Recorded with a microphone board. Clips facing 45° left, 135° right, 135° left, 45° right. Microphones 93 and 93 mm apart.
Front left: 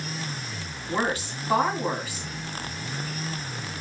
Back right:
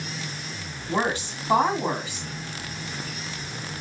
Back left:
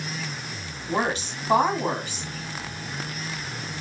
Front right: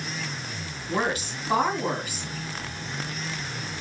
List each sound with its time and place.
0.9 s a woman speaking: 175° left, 2 m